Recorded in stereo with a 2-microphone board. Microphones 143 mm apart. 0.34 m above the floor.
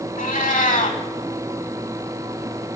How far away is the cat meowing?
About 0.8 m.